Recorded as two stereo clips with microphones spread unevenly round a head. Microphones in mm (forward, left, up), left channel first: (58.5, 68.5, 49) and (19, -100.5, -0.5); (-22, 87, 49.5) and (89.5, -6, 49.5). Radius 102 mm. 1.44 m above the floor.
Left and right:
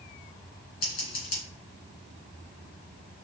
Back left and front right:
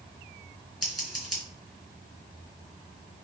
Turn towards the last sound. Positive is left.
turn(degrees=50)